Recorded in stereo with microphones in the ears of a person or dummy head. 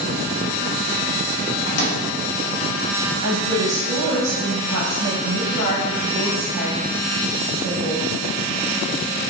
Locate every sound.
1.7 s a microwave: 60° left (ahead or behind), 0.8 m
3.2 s a woman speaking: 85° right, 1.2 m